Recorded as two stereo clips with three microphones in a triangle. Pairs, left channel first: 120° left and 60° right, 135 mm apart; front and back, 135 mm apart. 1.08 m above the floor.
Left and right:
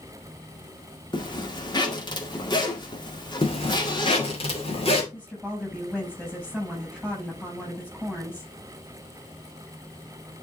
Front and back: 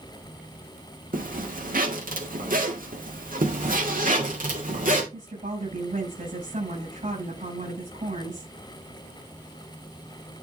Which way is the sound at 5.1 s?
160° right.